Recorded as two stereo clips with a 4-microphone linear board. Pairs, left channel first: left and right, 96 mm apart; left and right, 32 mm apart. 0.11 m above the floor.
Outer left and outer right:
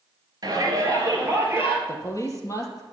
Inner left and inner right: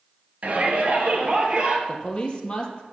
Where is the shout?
40° right (ahead or behind), 2.5 m; by 1.8 s 25° right (ahead or behind), 3 m.